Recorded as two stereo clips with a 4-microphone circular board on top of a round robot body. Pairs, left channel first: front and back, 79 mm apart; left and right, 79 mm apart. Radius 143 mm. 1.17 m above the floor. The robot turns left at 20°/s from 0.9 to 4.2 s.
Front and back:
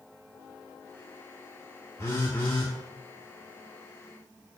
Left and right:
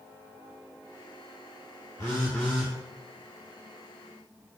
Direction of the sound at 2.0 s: 45° left.